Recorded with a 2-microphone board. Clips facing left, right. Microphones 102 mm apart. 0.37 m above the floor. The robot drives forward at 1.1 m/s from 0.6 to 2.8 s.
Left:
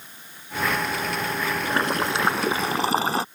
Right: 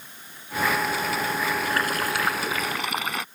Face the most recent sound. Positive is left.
turn(degrees=30)  # may be behind; listen again after turning